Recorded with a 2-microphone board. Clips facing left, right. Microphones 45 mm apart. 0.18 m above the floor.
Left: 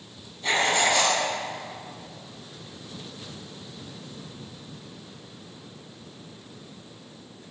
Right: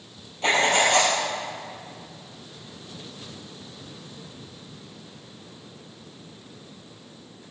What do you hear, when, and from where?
0.4 s writing: 75° right (ahead or behind), 3.5 m